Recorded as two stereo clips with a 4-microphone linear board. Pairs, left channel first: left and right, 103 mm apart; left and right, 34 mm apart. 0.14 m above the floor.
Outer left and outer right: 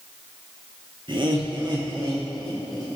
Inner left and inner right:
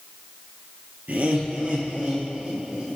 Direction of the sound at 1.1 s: 55° right (ahead or behind).